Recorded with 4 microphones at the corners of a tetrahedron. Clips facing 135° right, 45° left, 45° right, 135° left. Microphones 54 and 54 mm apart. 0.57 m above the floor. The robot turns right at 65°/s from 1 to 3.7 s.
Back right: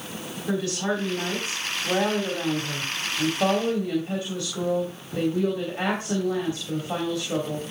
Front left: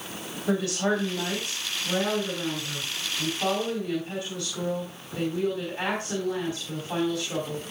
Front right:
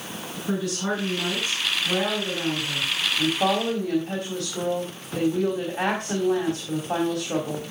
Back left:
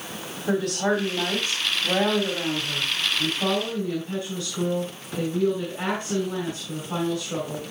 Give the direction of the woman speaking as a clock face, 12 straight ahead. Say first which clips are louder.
Front left 1 dB, back left 4 dB; 8 o'clock.